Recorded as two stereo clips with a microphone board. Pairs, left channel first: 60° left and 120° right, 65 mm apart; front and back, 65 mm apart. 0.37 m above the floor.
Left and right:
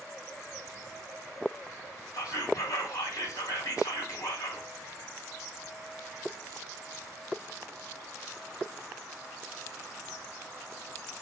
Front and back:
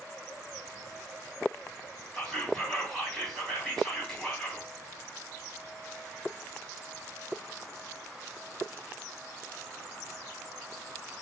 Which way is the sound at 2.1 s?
80° left.